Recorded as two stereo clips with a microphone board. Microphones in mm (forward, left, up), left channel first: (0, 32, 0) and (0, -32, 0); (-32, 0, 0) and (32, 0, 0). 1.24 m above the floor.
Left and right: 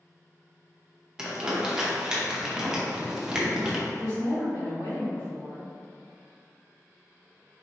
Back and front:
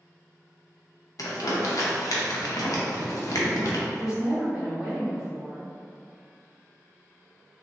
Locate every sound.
1.2 s crumpling: 165° right, 0.6 m
3.9 s a woman speaking: 80° left, 1.6 m